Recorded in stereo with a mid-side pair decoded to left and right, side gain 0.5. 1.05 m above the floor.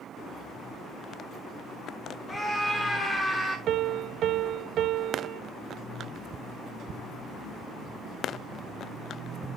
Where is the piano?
65° right, 0.6 m.